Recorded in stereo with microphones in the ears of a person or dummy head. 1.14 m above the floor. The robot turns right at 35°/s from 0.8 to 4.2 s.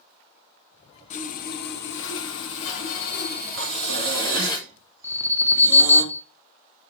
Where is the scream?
I don't hear a scream.